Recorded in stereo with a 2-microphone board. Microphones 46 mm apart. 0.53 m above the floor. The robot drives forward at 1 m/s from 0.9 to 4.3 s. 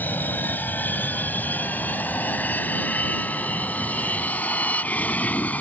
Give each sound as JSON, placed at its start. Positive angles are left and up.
{"t": 0.0, "sound": "an aircraft", "side_deg": 45}